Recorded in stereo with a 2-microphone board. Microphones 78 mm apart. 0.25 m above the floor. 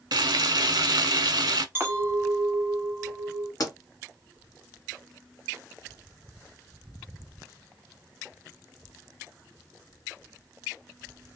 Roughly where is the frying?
Right.